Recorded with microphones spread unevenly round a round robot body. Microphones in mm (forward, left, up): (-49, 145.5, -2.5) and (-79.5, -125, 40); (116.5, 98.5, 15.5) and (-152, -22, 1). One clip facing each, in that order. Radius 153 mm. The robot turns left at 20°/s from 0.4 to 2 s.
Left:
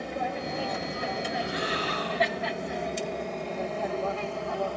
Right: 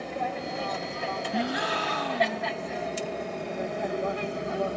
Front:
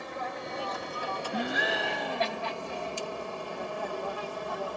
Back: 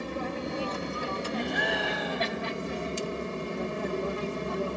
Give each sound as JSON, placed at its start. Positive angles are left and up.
{"t": 0.0, "sound": "an aircraft", "azimuth_deg": 165}
{"t": 1.3, "sound": "a gasp", "azimuth_deg": -55}